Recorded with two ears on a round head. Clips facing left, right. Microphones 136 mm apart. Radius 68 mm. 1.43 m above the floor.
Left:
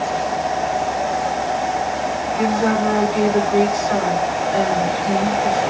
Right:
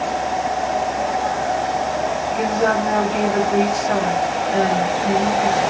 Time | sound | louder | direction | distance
2.4 | a woman speaking | left 1 dB | 55° right (ahead or behind) | 1.2 m